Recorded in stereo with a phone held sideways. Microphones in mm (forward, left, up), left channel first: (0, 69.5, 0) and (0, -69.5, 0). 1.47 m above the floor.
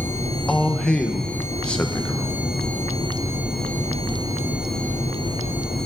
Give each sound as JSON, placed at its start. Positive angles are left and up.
{"t": 0.5, "sound": "a man speaking", "side_deg": 5, "distance_m": 1.2}